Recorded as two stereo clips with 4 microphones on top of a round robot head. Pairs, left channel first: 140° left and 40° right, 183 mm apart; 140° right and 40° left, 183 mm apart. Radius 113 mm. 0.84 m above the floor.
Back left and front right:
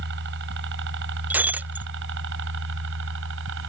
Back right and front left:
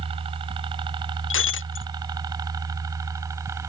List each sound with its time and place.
0.0 s a helicopter: 20° right; by 3.7 s 35° right
1.3 s breaking glass: 125° right